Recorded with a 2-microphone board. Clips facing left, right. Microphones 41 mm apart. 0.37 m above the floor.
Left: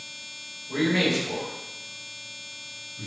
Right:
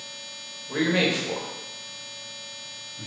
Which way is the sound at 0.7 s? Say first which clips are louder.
Even; 30° right (ahead or behind).